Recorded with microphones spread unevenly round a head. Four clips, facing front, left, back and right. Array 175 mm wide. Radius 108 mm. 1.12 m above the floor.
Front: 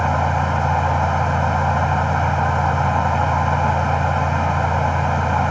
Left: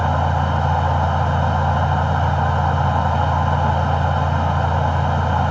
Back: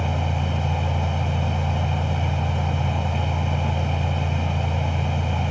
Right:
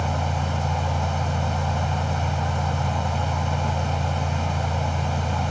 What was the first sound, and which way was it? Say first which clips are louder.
A fan: left 7 dB, front 8 dB; 30° left.